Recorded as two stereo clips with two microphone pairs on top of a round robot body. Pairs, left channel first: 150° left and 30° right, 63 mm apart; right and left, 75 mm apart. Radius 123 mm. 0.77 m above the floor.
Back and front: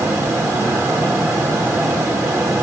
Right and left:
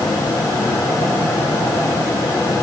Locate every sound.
Only background noise.